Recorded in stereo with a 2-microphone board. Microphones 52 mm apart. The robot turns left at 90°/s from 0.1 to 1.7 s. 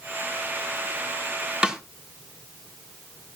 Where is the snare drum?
20° right (ahead or behind), 1.4 m; by 1.8 s 15° right (ahead or behind), 1.4 m.